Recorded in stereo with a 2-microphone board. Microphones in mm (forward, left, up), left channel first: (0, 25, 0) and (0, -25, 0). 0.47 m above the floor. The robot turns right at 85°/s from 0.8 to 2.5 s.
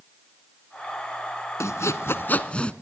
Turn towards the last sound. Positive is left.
turn(degrees=155)